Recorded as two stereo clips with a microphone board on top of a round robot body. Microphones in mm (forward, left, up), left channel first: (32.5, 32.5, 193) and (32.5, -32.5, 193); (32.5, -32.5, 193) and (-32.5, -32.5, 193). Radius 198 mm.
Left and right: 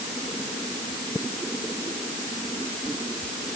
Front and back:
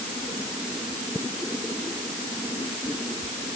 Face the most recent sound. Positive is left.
No sound to turn to.